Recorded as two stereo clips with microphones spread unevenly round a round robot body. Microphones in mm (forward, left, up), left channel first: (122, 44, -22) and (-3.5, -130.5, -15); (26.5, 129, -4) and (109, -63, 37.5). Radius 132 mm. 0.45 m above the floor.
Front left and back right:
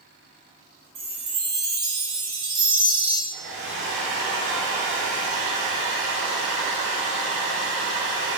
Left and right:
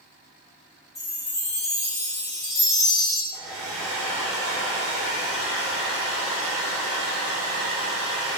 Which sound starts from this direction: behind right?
A hair dryer, at 3.3 s.